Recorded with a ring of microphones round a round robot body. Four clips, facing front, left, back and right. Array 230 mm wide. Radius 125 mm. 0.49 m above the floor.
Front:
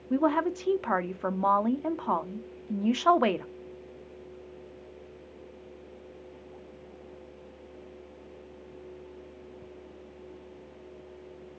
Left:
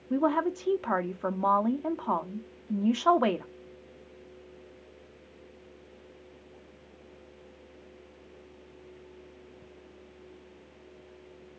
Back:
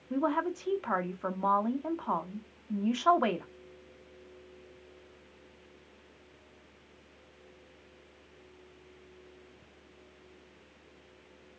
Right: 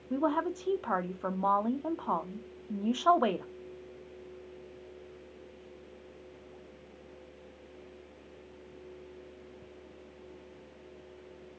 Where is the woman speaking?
20° left, 0.8 m.